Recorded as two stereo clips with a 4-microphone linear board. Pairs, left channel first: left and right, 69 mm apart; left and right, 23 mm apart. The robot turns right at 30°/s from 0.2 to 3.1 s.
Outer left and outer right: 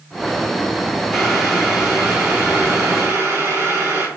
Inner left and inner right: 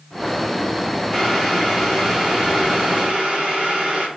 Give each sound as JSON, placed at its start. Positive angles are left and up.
{"t": 1.1, "sound": "boiling", "azimuth_deg": 170, "distance_m": 1.6}